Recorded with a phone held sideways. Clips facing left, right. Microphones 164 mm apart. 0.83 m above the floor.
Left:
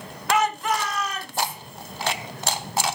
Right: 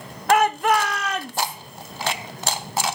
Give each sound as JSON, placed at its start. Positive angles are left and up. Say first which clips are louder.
{"t": 0.3, "sound": "a shout", "louder": "right 5 dB", "side_deg": -55, "distance_m": 0.9}